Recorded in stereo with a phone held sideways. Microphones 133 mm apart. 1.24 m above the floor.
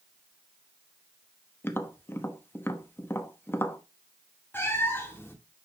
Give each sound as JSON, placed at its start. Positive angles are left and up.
{"t": 1.6, "sound": "tapping", "side_deg": 15, "distance_m": 0.9}
{"t": 4.5, "sound": "a cat meowing", "side_deg": 15, "distance_m": 1.8}